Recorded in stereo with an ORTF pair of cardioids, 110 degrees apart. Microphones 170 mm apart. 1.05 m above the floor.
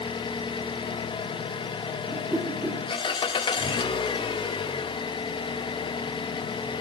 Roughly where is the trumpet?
I don't hear a trumpet.